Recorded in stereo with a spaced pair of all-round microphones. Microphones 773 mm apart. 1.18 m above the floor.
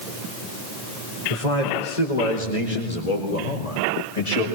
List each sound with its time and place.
1.3 s a man speaking: 65° left (ahead or behind), 4 m; by 4.5 s 50° left (ahead or behind), 5.5 m